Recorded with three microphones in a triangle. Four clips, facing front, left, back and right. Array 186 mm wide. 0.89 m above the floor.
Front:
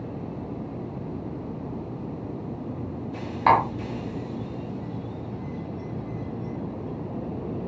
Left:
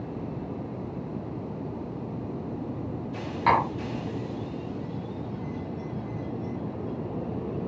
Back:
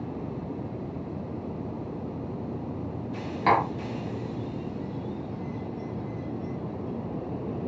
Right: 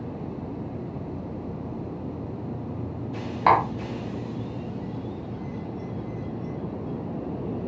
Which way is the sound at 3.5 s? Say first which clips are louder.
Right 3 dB, front 4 dB; 60° right.